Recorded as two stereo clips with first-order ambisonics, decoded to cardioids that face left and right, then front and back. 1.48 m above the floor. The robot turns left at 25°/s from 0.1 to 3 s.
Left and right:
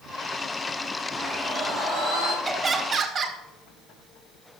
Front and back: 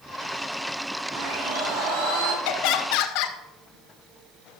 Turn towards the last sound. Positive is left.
turn(degrees=-25)